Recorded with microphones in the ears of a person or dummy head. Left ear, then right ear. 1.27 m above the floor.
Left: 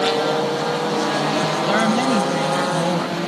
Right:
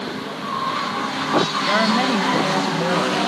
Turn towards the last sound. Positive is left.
turn(degrees=-30)  # may be behind; listen again after turning